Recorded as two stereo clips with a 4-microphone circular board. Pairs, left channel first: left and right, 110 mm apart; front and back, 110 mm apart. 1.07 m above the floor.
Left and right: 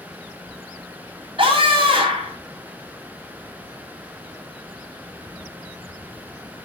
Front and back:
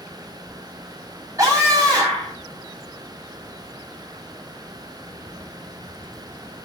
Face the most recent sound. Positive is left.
turn(degrees=-125)